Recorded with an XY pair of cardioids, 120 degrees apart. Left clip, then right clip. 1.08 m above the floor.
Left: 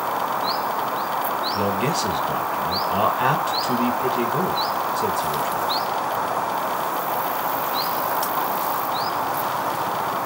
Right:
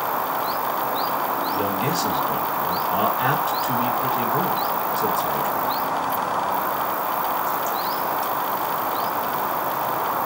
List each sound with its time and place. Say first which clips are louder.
1.5 s a man speaking: left 1 dB; 20° left, 1.3 m